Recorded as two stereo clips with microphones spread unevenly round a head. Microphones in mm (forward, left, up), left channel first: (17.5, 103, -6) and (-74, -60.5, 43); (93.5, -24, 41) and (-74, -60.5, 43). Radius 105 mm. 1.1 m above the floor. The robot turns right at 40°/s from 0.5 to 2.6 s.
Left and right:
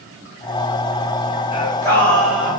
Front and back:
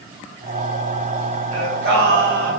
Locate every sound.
1.5 s singing: 130° left, 1.3 m; by 2.5 s 170° left, 1.3 m